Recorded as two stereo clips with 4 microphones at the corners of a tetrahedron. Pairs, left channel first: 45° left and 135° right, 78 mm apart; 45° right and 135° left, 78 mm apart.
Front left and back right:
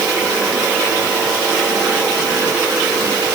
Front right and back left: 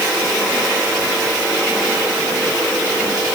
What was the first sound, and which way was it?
Only background noise.